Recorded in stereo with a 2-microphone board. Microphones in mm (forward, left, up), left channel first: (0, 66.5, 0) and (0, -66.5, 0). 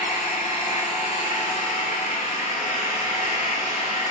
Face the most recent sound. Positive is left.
turn(degrees=80)